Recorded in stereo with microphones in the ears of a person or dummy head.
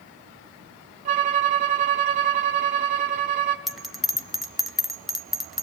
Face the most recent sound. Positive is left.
turn(degrees=0)  # may be behind; listen again after turning